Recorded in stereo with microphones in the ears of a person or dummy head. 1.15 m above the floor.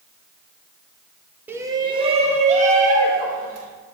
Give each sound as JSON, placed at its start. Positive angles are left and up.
{"t": 1.5, "sound": "a shout", "side_deg": -10, "distance_m": 0.8}